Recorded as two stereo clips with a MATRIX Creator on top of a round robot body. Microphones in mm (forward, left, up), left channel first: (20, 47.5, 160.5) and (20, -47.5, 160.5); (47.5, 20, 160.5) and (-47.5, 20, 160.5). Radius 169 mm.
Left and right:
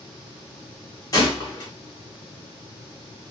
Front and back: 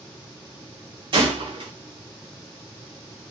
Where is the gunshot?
145° left, 0.6 m.